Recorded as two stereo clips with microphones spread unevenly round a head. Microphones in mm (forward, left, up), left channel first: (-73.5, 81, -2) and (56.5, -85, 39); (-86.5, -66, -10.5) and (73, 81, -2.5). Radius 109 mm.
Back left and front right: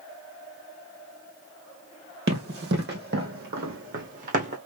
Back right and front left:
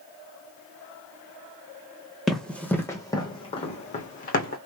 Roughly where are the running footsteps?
Ahead right.